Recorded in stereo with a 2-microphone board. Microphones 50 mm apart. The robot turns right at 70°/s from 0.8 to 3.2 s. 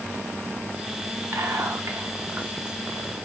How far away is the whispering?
About 0.9 m.